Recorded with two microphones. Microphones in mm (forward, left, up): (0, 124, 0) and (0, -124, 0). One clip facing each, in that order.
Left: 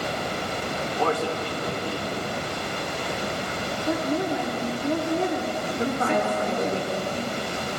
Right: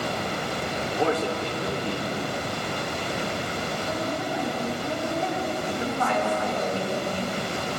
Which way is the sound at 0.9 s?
20° right (ahead or behind).